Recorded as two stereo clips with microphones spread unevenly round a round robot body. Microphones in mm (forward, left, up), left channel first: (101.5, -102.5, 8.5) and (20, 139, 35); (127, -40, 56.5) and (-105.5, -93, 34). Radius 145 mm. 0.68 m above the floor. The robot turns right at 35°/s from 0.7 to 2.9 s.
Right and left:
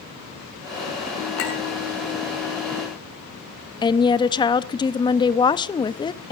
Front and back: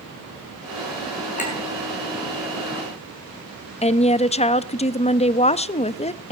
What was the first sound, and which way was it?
A clink, 50° right.